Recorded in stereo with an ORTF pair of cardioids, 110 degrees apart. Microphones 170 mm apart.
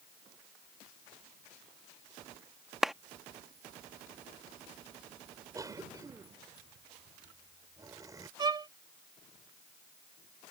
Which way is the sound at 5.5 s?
20° right.